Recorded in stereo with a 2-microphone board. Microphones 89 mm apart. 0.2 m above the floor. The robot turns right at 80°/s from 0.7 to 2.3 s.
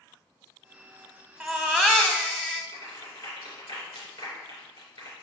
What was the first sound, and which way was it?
A baby crying, 10° right (ahead or behind).